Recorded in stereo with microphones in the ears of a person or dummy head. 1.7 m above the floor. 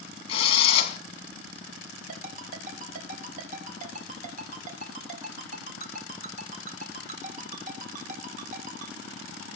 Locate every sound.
0.3 s a drill: 35° left (ahead or behind), 3 m
2.1 s a ringtone: 45° right (ahead or behind), 4.5 m